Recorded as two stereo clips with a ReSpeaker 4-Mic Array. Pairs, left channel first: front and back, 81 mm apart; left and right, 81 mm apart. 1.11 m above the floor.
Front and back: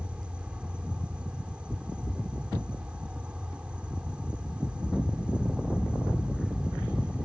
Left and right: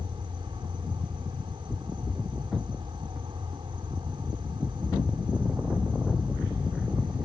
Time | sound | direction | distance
0.0 | an insect | 105° right | ?